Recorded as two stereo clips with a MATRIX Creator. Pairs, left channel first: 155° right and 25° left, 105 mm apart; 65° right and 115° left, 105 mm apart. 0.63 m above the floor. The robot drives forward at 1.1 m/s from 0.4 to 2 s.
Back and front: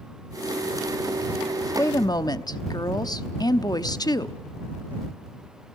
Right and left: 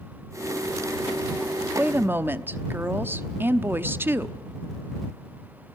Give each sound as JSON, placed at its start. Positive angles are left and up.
{"t": 1.8, "sound": "a woman speaking", "azimuth_deg": 165, "distance_m": 0.6}